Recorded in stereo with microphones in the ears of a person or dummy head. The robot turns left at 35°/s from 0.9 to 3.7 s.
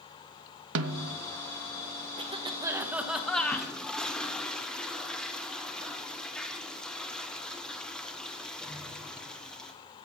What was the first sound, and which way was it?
A snare drum, 65° right (ahead or behind).